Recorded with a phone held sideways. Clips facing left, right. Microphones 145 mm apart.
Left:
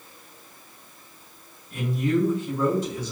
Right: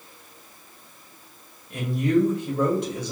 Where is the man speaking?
70° right (ahead or behind), 1.7 m.